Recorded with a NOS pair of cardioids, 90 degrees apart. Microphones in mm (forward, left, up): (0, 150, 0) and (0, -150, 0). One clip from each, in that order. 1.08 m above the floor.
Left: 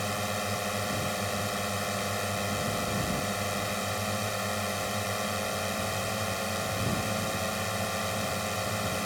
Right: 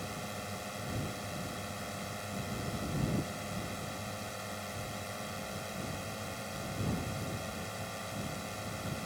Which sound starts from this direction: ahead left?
A drone, at 0.0 s.